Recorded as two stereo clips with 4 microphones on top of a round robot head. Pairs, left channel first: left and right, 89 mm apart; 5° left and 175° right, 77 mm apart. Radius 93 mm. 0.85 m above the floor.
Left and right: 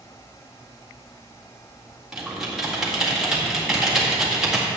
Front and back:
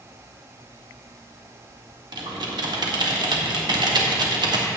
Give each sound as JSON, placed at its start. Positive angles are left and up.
{"t": 2.1, "sound": "typing on a keyboard", "azimuth_deg": -175, "distance_m": 1.8}